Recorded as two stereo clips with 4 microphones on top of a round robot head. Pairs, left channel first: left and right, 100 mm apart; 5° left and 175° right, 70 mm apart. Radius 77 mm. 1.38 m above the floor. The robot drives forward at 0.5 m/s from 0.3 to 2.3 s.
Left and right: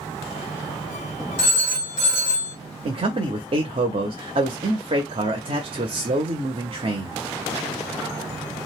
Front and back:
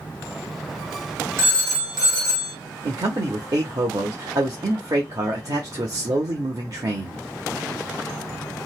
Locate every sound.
1.4 s a phone ringing: 135° left, 1.3 m; by 2.5 s 150° left, 1.6 m
2.9 s a man speaking: 130° right, 0.6 m